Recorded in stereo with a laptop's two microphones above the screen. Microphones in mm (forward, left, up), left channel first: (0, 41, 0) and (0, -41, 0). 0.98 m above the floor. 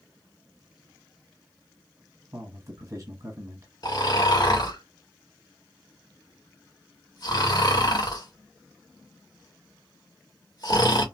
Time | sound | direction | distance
2.3 | a man speaking | 35° right (ahead or behind) | 1.3 m
3.8 | snoring | 50° left (ahead or behind) | 1.6 m